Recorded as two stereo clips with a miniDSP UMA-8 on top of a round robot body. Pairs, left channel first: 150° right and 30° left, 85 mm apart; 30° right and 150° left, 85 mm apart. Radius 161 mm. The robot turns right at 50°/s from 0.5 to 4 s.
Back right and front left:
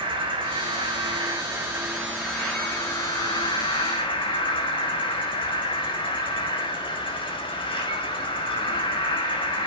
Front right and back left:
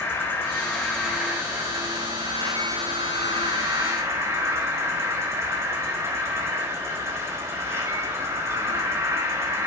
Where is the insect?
35° left, 5 m; by 9.7 s 150° right, 5 m.